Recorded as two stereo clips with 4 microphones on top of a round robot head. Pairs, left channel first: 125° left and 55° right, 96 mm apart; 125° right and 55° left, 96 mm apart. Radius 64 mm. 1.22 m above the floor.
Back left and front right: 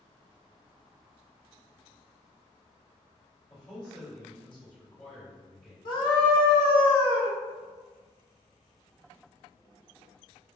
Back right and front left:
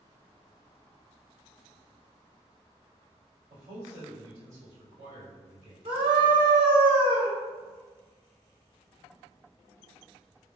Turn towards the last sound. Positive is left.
turn(degrees=85)